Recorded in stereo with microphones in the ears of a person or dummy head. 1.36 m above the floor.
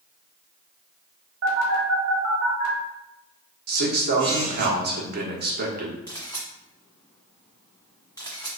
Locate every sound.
1.4 s a phone buzzing: 70° right (ahead or behind), 1.1 m
3.7 s a man speaking: 55° right (ahead or behind), 0.9 m
6.1 s a camera shutter: 20° left (ahead or behind), 1.5 m